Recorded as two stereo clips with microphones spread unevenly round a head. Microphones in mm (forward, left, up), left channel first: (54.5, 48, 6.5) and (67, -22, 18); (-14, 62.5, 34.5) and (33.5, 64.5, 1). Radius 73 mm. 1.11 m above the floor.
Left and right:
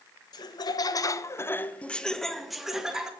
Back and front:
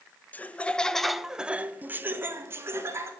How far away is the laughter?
About 1.1 m.